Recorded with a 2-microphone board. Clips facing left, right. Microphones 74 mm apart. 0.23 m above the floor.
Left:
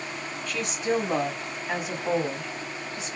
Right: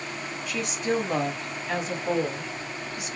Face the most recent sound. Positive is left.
turn(degrees=30)  # may be behind; listen again after turning